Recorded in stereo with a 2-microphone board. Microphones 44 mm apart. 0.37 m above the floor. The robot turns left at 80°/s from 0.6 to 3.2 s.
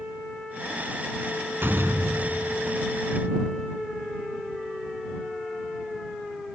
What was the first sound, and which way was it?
A door slam, 55° right.